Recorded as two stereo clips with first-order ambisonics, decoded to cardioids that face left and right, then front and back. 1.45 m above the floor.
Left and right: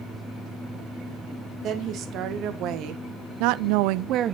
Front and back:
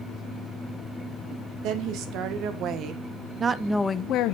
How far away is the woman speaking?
About 2.5 m.